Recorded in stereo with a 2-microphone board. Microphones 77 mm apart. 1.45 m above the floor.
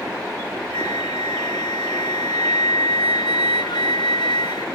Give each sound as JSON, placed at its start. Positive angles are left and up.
{"t": 0.7, "sound": "a flute", "side_deg": 85}